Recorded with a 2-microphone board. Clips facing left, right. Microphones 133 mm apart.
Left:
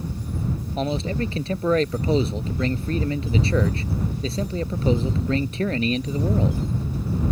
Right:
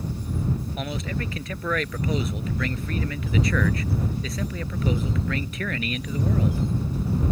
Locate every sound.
0.8 s a man speaking: 30° left (ahead or behind)